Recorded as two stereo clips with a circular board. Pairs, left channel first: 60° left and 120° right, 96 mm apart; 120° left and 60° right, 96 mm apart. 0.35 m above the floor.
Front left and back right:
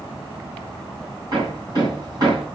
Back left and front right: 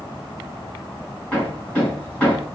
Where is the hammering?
165° right, 3.5 m.